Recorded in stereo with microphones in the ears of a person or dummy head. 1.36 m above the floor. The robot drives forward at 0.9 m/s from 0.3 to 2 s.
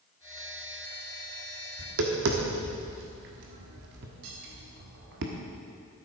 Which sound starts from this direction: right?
Tapping, at 1.8 s.